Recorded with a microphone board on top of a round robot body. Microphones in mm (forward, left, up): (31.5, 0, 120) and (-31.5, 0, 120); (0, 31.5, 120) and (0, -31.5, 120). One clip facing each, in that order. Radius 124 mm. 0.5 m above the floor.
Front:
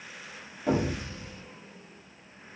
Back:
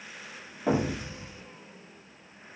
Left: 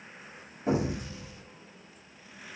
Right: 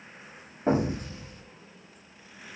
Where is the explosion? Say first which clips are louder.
Even, right 3 dB; 120° right, 0.8 m.